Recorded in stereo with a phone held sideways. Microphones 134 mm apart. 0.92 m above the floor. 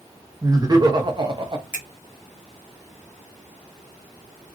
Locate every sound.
0.4 s laughter: 30° right (ahead or behind), 1.3 m; by 1.6 s 35° right (ahead or behind), 0.7 m
1.7 s a finger snap: 10° right (ahead or behind), 1.3 m